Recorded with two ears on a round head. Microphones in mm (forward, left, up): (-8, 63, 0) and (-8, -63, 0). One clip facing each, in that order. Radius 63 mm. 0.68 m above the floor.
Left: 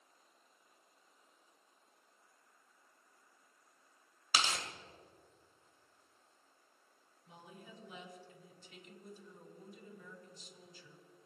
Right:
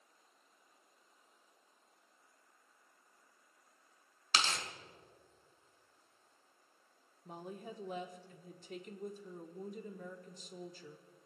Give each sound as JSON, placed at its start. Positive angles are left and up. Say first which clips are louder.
{"t": 4.3, "sound": "tearing paper", "louder": "even", "side_deg": 10, "distance_m": 2.0}
{"t": 7.2, "sound": "a woman speaking", "louder": "right 9 dB", "side_deg": -40, "distance_m": 1.6}